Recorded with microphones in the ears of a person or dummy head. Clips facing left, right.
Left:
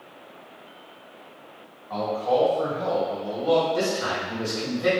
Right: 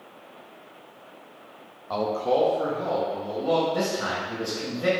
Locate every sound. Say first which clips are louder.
1.9 s a man speaking: even; 70° right (ahead or behind), 0.6 m; by 3.6 s 10° left (ahead or behind), 1.9 m
3.7 s a man speaking: left 2 dB; 25° right (ahead or behind), 1.7 m